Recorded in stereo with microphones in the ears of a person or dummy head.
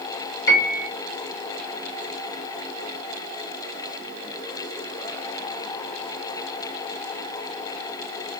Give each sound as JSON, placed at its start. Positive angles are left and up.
{"t": 0.5, "sound": "a piano", "side_deg": 70, "distance_m": 0.9}